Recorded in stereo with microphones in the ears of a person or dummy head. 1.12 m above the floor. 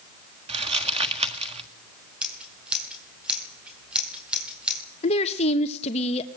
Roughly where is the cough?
No cough in this recording.